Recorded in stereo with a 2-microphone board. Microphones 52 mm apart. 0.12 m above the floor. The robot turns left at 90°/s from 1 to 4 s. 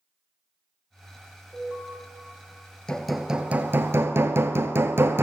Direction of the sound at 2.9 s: 20° left.